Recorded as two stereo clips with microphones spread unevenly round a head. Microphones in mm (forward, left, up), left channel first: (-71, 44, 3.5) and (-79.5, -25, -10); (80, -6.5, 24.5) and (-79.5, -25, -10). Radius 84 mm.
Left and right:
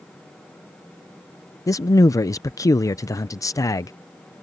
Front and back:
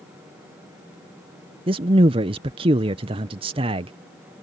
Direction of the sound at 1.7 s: 125° left.